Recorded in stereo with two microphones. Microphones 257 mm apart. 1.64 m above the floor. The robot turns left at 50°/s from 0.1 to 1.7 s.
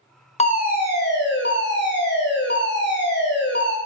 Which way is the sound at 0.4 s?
145° left.